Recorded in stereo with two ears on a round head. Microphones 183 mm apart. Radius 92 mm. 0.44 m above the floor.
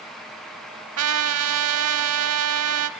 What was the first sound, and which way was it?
A trumpet, 90° right.